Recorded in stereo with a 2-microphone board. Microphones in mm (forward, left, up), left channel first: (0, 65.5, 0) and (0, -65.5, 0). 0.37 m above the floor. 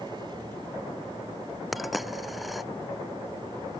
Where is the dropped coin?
Centre (ahead or behind).